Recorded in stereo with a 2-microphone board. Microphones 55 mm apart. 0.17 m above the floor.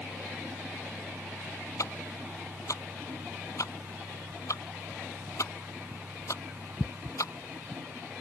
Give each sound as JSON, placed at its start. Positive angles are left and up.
{"t": 1.8, "sound": "ticking", "side_deg": 75}